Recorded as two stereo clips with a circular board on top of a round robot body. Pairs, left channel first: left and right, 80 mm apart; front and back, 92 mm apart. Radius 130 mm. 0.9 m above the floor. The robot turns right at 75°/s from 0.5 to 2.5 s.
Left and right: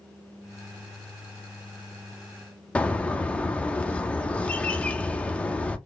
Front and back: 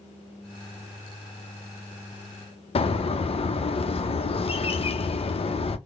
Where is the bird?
15° left, 0.7 m.